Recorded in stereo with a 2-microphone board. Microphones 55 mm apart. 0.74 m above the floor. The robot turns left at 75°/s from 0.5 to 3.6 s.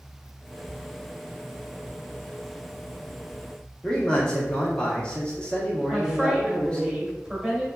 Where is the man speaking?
20° left (ahead or behind), 1.3 m.